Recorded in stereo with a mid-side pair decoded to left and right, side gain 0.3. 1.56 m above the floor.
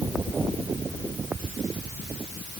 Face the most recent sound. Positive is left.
No sound to turn to.